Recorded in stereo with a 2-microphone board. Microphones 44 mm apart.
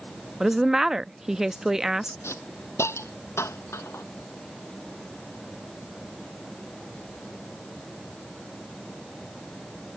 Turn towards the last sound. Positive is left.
turn(degrees=75)  # may be behind; listen again after turning